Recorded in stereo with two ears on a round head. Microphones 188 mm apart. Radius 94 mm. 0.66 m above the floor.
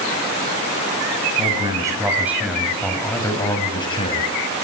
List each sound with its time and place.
1.4 s a man speaking: 25° right (ahead or behind), 4.5 m; by 4.3 s 30° left (ahead or behind), 4.5 m